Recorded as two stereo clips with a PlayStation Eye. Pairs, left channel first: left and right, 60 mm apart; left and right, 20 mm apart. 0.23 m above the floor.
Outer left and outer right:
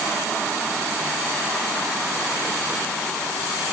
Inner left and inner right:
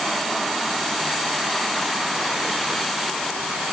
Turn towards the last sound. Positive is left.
No sound to turn to.